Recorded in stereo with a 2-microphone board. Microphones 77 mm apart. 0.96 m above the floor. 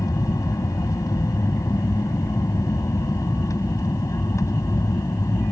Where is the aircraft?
45° left (ahead or behind).